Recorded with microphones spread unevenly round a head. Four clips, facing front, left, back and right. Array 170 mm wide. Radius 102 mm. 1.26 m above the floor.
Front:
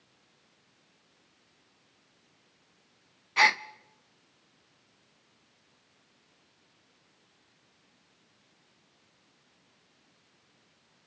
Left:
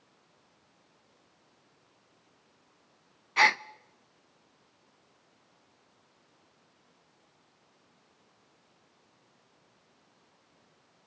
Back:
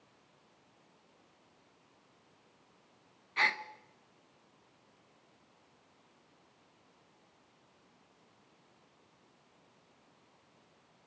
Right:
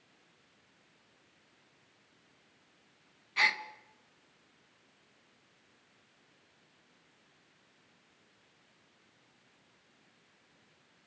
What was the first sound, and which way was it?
A gasp, 65° left.